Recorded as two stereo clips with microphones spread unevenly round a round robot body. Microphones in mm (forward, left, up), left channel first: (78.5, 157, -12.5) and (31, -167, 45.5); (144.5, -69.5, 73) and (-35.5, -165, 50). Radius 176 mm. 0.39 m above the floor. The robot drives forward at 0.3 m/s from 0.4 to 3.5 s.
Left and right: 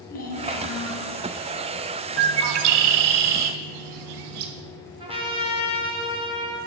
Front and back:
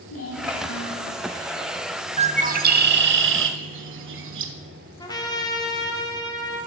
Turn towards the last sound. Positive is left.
turn(degrees=-25)